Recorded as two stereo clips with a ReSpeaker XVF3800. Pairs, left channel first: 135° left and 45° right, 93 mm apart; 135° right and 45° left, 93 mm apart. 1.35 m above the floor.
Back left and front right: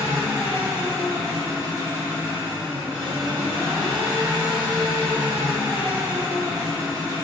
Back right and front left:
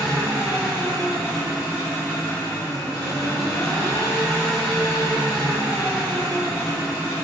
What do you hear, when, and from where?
0.0 s an engine running: 10° right, 1.0 m